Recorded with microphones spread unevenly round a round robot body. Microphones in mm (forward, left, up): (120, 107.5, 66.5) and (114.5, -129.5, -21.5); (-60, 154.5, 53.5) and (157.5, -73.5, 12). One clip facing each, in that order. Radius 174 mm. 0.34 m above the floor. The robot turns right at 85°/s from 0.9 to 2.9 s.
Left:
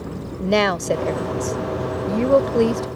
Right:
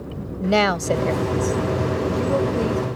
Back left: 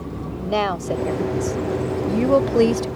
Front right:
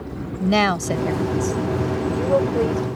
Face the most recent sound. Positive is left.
turn(degrees=150)